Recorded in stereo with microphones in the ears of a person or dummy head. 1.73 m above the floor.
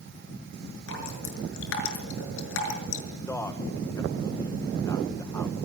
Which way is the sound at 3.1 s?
10° left (ahead or behind).